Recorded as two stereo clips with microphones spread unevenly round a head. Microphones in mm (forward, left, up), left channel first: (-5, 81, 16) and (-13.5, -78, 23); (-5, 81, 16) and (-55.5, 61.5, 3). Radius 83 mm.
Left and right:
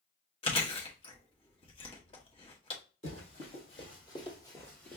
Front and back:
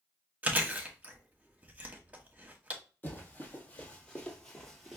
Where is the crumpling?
No crumpling in this recording.